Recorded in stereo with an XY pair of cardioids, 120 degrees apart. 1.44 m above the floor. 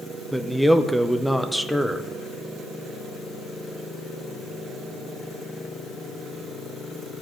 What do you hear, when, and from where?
0.3 s a man speaking: straight ahead, 0.7 m